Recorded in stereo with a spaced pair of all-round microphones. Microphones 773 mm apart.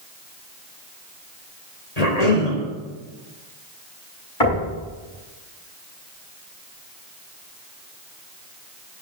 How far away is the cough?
About 3.5 m.